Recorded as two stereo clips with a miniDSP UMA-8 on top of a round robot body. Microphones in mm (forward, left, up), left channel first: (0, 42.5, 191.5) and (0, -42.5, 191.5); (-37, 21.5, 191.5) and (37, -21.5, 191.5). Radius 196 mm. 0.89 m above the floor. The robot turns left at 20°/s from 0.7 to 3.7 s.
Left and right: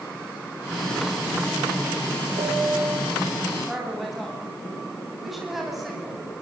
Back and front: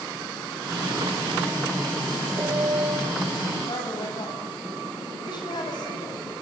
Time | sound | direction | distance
2.4 | a piano | 85° right | 5 m
3.7 | a woman speaking | straight behind | 9.5 m